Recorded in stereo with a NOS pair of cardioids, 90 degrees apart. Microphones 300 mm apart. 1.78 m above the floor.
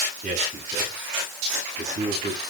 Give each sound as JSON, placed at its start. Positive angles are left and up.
{"t": 0.2, "sound": "a man speaking", "azimuth_deg": -30, "distance_m": 10.0}